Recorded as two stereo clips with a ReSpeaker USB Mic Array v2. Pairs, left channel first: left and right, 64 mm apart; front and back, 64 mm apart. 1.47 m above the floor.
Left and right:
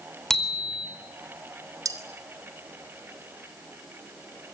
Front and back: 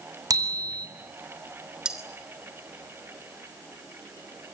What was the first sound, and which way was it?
A bicycle bell, 175° left.